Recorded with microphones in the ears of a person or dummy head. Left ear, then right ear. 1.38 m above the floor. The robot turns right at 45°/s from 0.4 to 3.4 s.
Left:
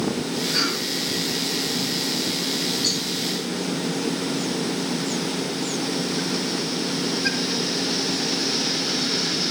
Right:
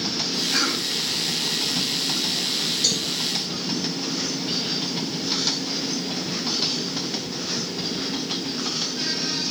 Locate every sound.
0.5 s a cough: 25° right (ahead or behind), 7.5 m; by 0.9 s 45° right (ahead or behind), 7.5 m
2.8 s a cowbell: 60° right (ahead or behind), 9 m; by 3.0 s 50° right (ahead or behind), 9 m